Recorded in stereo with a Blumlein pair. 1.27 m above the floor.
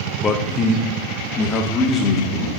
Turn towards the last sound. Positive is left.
turn(degrees=25)